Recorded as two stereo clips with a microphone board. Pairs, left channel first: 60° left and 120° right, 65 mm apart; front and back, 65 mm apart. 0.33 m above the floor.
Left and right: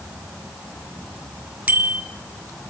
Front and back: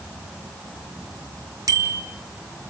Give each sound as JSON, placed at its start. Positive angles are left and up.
{"t": 1.7, "sound": "a bicycle bell", "azimuth_deg": 180, "distance_m": 2.0}